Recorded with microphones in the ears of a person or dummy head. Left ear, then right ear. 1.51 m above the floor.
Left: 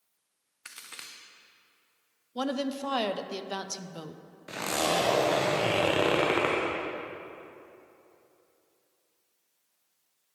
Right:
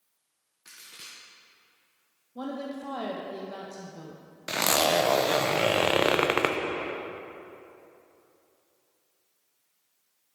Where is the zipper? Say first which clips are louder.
Right 5 dB; 35° right (ahead or behind), 0.6 m.